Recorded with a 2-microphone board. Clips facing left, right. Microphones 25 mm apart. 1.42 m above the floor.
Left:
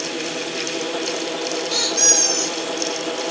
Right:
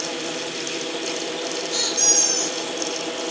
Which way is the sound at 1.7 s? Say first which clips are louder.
Left 3 dB; 60° left (ahead or behind).